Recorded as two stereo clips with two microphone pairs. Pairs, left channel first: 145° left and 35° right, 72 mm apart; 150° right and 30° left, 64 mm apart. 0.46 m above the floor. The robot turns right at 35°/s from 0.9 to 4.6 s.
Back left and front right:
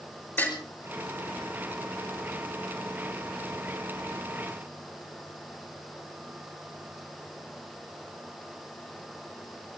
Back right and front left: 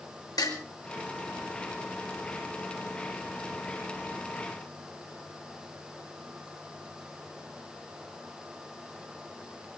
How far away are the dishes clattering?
About 6 m.